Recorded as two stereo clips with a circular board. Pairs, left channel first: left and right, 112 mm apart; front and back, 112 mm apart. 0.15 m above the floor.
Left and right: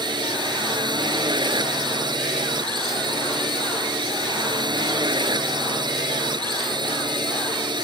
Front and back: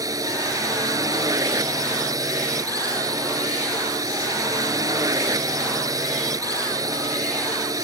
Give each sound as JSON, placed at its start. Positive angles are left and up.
{"t": 0.0, "sound": "a drone", "azimuth_deg": -130}